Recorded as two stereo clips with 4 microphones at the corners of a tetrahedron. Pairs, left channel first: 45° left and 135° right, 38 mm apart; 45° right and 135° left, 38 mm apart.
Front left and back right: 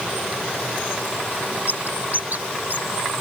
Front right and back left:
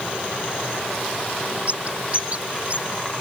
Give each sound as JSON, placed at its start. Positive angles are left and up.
{"t": 1.7, "sound": "a bird", "azimuth_deg": -175}